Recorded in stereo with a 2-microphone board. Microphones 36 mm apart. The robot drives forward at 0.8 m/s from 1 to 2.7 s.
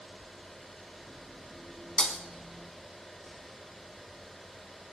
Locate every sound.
2.0 s breaking glass: 30° left (ahead or behind), 1.5 m; by 2.2 s 25° left (ahead or behind), 1.6 m